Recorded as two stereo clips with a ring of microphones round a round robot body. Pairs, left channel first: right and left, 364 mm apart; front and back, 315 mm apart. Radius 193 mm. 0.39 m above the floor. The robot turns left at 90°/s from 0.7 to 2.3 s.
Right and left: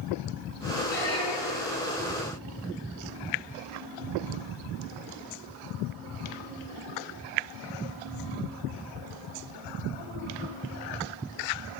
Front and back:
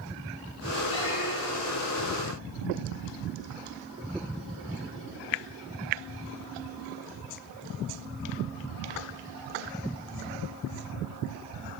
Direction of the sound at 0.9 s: 30° right.